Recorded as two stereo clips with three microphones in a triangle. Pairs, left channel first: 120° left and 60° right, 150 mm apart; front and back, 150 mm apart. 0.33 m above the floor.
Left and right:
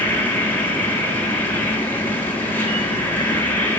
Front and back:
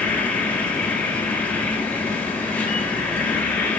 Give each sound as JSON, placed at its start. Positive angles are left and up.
{"t": 0.0, "sound": "an insect", "azimuth_deg": 60, "distance_m": 1.7}